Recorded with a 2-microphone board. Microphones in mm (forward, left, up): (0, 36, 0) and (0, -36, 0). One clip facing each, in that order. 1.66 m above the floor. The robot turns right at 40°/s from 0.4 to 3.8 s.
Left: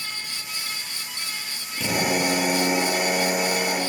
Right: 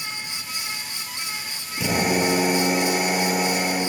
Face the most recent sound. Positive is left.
turn(degrees=75)